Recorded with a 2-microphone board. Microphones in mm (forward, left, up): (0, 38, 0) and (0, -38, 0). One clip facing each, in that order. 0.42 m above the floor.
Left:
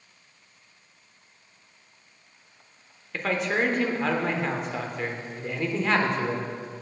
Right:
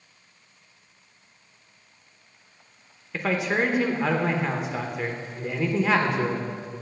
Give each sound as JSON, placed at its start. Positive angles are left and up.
{"t": 3.1, "sound": "a man speaking", "side_deg": -5, "distance_m": 0.8}